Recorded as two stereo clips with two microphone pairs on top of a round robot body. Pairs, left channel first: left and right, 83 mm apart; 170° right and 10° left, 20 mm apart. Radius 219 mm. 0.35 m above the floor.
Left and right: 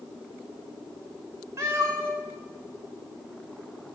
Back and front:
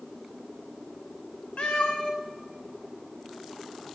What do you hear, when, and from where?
1.6 s a cat meowing: 150° right, 0.6 m